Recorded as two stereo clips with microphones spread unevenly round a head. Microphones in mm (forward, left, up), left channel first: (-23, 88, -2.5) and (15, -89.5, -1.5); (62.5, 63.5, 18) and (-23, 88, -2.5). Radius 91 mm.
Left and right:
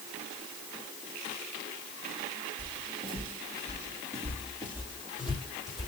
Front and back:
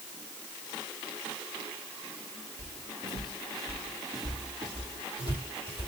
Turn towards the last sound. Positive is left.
turn(degrees=-170)